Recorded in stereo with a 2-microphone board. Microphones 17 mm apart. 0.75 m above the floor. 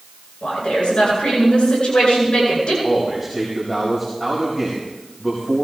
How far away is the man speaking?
About 4.5 m.